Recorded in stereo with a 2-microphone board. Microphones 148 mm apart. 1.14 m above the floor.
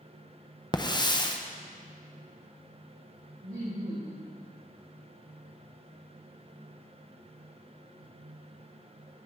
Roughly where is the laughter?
Right.